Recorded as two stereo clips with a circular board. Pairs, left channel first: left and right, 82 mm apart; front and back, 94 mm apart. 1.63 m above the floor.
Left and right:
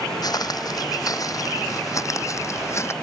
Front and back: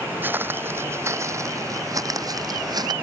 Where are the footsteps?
115° left; by 2.9 s 140° left.